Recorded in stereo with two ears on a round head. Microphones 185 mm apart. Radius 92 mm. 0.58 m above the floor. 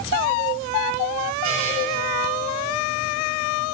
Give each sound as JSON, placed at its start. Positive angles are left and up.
{"t": 1.4, "sound": "a buzzer", "side_deg": -75, "distance_m": 7.0}